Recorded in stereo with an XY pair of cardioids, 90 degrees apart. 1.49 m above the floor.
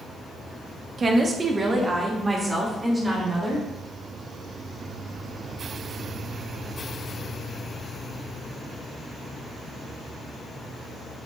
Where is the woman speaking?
40° right, 1.3 m; by 3.6 s 20° right, 4 m.